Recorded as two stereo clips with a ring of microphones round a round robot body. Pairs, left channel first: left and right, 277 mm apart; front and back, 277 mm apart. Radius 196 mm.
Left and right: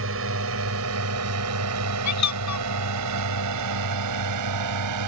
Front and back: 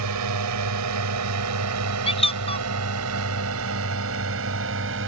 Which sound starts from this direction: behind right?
A drone, at 0.0 s.